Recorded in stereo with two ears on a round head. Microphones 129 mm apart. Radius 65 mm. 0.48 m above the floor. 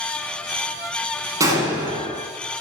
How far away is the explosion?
About 3.5 m.